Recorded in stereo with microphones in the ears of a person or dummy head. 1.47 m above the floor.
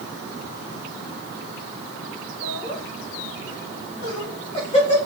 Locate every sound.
2.4 s laughter: 55° left (ahead or behind), 5.5 m; by 5.1 s 35° left (ahead or behind), 3.5 m